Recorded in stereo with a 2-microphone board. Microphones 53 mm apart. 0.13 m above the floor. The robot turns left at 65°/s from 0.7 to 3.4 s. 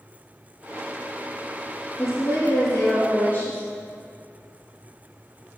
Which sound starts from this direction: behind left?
A woman speaking, at 2.0 s.